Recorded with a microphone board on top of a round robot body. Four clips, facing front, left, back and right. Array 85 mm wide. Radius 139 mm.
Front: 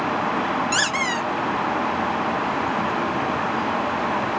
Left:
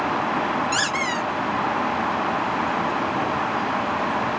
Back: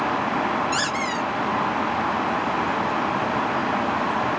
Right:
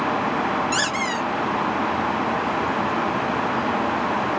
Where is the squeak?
5° left, 1.1 m.